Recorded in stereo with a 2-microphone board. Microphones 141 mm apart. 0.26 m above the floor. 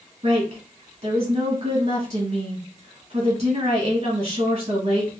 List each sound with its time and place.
0.2 s a woman speaking: 55° right (ahead or behind), 2 m